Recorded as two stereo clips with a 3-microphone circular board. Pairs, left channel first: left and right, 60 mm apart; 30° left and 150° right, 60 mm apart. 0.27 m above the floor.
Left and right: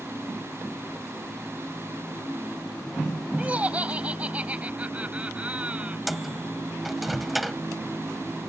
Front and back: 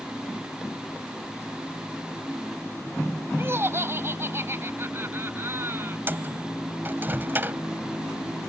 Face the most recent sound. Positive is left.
turn(degrees=-175)